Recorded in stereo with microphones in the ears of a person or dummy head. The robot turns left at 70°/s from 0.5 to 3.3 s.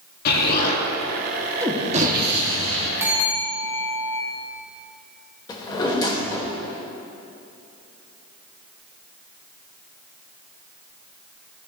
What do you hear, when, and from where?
0.2 s an explosion: 60° left, 1.4 m; by 2.9 s 105° right, 1.4 m
3.0 s a bell: 15° right (ahead or behind), 1.0 m; by 4.2 s 5° left (ahead or behind), 1.0 m
5.5 s a drawer: 25° left (ahead or behind), 1.2 m